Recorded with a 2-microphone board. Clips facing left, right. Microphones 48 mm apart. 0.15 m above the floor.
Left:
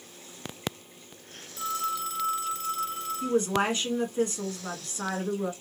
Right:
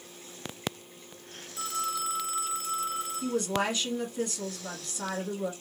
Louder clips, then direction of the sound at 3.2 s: Left 4 dB; 35° left (ahead or behind).